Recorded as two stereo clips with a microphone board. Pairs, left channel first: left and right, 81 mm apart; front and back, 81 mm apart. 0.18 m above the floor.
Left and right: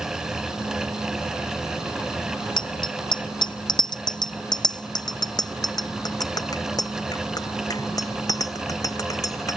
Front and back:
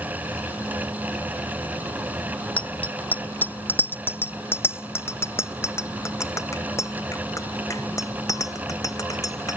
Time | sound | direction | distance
2.6 | a bicycle bell | 70° left | ?